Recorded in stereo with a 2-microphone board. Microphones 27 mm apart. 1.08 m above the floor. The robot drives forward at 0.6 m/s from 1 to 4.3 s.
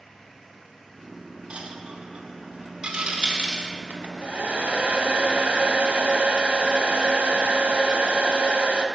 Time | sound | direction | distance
1.5 | a dropped coin | 50° right (ahead or behind) | 0.9 m
3.9 | a hair dryer | 70° right (ahead or behind) | 0.6 m